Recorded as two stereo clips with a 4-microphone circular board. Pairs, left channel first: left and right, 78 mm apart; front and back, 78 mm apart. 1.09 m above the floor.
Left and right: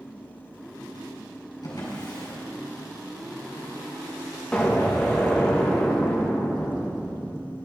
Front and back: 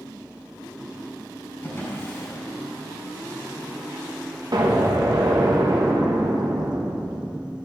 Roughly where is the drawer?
Ahead left.